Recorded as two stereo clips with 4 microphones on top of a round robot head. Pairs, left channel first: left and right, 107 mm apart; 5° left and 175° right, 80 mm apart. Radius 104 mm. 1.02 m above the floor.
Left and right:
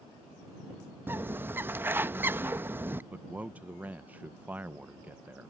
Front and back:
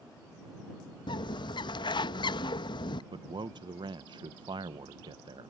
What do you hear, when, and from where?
1.1 s a bird: 20° right
3.1 s a man speaking: 165° right